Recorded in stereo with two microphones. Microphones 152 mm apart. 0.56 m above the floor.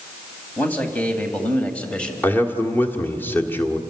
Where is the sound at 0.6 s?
10° left (ahead or behind), 3 m; by 2.1 s 5° left (ahead or behind), 2 m.